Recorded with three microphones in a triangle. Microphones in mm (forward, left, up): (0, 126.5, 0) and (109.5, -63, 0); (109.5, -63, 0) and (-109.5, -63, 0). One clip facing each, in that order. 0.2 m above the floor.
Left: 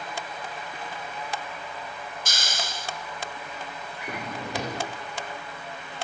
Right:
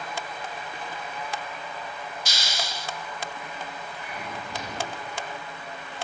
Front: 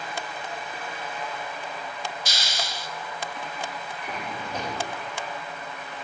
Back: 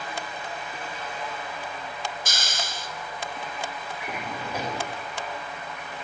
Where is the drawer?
100° left, 8 m.